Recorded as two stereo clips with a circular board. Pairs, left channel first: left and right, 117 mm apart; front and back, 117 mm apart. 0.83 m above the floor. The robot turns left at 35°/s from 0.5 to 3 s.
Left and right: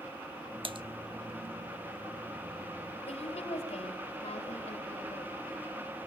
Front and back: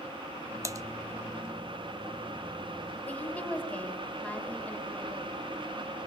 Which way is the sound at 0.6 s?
120° right.